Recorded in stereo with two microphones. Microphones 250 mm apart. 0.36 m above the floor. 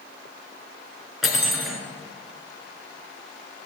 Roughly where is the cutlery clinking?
Centre.